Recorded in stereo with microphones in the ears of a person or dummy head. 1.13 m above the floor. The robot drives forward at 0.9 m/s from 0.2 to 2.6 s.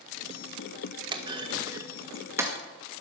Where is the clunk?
25° right (ahead or behind), 1.1 m; by 2.5 s 10° right (ahead or behind), 2 m.